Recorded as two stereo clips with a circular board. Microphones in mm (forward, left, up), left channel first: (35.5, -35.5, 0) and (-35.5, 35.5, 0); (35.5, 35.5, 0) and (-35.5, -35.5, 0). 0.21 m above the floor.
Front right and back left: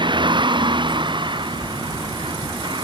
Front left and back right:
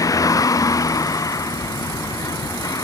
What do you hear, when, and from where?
0.0 s a vehicle: 100° left